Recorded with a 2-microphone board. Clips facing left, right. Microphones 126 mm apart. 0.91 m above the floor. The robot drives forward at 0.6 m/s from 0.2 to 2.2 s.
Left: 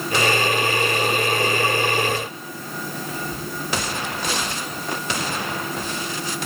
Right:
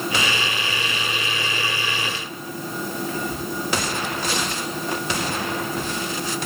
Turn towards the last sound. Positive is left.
turn(degrees=35)  # may be behind; listen again after turning